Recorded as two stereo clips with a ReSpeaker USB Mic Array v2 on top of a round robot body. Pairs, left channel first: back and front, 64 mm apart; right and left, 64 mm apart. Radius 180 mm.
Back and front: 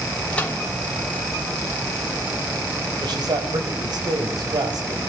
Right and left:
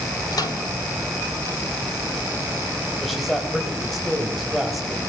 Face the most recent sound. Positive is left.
turn(degrees=0)